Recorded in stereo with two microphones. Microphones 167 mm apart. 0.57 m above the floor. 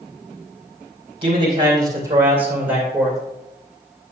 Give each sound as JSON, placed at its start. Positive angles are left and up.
{"t": 1.2, "sound": "a man speaking", "side_deg": -35, "distance_m": 2.5}